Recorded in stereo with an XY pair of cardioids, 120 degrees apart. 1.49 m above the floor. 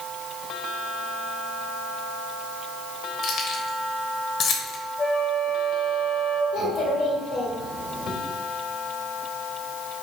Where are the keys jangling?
55° left, 1.1 m.